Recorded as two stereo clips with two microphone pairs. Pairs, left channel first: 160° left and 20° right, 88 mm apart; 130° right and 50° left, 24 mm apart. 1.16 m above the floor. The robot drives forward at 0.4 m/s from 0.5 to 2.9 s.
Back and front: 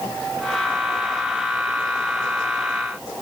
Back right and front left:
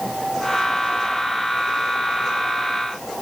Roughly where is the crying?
No crying in this recording.